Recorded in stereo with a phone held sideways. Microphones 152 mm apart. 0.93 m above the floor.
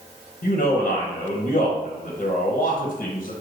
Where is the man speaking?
55° left (ahead or behind), 0.6 m.